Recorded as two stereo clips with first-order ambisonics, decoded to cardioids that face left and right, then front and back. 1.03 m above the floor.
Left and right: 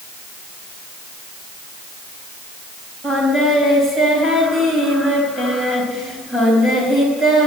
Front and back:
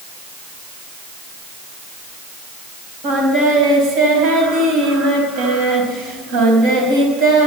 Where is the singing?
Straight behind, 4.5 m.